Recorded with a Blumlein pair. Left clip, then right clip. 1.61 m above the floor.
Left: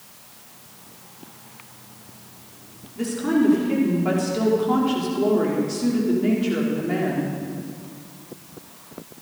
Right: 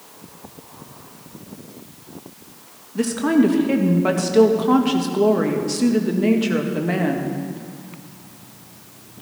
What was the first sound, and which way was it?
A woman speaking, 45° right.